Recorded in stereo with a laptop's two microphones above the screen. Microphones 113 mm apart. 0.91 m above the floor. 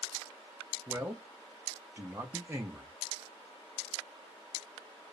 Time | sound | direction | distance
0.9 | a man speaking | 20° right (ahead or behind) | 0.8 m